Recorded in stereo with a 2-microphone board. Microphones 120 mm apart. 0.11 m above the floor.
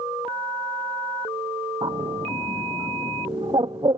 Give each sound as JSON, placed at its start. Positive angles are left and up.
{"t": 1.8, "sound": "a bird", "side_deg": -35}